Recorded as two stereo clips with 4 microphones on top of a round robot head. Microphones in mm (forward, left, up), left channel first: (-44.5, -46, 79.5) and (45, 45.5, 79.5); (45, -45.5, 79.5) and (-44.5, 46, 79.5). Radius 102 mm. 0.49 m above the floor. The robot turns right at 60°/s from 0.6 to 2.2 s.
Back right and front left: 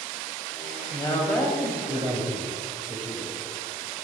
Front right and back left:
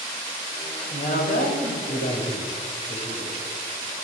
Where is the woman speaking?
85° right, 3 m; by 3.3 s 5° right, 3 m.